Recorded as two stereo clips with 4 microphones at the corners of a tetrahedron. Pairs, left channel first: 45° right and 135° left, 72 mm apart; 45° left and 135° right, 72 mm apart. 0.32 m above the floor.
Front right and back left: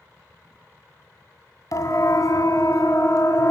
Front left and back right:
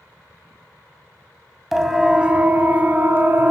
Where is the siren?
50° right, 2.5 m; by 3.5 s 75° right, 4 m.